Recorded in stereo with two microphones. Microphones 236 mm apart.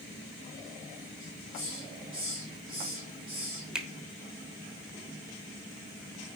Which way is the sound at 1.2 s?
60° right (ahead or behind).